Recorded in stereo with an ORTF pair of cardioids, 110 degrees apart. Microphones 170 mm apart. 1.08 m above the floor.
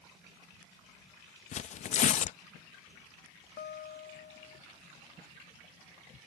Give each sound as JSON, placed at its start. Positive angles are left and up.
{"t": 1.5, "sound": "tearing paper", "azimuth_deg": 45}
{"t": 3.6, "sound": "a guitar", "azimuth_deg": 65}